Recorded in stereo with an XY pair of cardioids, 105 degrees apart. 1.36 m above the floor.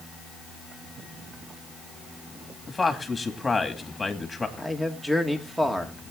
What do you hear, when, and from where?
2.7 s a man speaking: 20° left, 2.5 m
4.6 s a man speaking: 5° right, 2 m